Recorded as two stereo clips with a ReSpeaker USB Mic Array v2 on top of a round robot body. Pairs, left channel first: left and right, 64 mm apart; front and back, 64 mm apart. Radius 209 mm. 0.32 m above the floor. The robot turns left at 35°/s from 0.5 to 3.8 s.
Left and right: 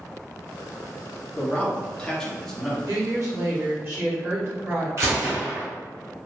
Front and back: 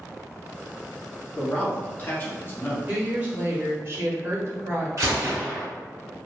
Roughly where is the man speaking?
Ahead left.